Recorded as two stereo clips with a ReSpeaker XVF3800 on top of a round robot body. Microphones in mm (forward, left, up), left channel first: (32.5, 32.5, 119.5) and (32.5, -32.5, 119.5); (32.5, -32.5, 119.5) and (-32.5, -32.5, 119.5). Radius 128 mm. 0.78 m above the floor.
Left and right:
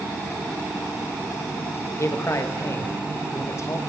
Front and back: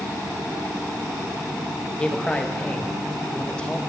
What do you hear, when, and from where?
1.9 s a man speaking: 70° left, 1.2 m